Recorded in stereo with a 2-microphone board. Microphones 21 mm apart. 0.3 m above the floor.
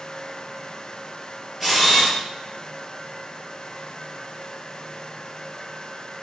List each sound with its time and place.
1.6 s a camera shutter: centre (ahead or behind), 2 m